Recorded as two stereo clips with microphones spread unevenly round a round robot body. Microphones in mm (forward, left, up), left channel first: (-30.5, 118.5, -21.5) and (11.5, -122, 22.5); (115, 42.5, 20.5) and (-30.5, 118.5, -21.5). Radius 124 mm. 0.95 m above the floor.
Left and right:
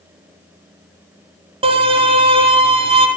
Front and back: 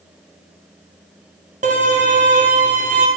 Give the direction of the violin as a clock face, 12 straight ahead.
5 o'clock.